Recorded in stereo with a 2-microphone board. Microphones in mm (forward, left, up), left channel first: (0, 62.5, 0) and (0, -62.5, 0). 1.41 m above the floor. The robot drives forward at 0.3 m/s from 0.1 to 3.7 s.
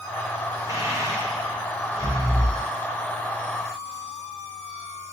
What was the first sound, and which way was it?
Breathing, 25° right (ahead or behind).